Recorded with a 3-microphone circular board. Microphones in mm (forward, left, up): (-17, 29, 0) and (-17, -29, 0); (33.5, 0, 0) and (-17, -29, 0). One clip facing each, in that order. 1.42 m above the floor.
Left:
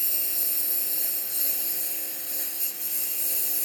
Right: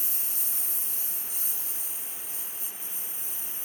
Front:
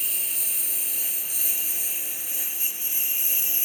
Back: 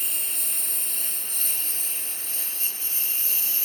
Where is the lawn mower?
115° left; by 3.7 s 100° left.